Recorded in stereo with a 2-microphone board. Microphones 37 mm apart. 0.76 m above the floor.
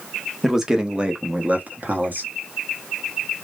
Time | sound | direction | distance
0.4 | a man speaking | 5° right (ahead or behind) | 0.9 m